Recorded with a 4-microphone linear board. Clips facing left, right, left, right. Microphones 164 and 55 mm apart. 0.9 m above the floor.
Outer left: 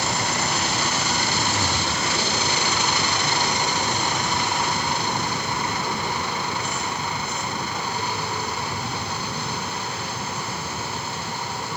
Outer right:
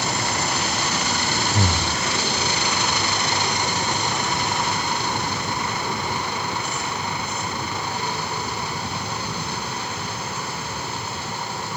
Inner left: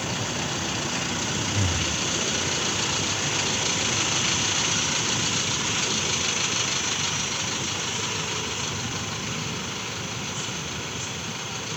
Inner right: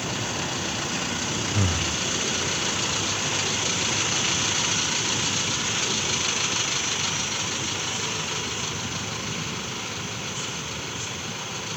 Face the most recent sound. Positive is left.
turn(degrees=-45)  # may be behind; listen again after turning